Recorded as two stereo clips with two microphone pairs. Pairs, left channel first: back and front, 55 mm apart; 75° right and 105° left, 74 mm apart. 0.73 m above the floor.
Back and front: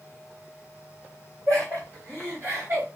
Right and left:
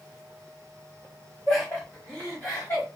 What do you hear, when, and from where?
1.5 s laughter: 5° left, 1.9 m; by 2.9 s 30° right, 1.3 m